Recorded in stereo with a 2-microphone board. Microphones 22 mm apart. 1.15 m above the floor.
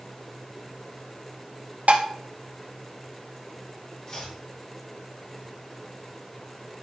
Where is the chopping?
35° left (ahead or behind), 3.5 m.